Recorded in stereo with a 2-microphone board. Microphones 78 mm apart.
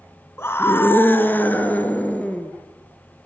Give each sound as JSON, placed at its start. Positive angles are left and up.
{"t": 0.4, "sound": "a scream", "side_deg": 30, "distance_m": 2.0}